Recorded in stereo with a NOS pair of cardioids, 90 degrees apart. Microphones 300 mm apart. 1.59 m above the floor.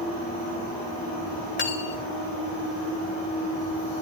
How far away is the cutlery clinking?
About 3 m.